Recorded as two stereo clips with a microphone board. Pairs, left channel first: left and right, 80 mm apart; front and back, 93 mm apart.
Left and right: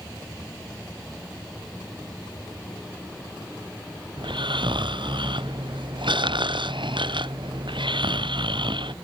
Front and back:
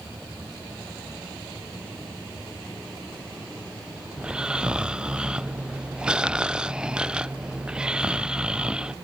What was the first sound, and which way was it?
Snoring, 100° right.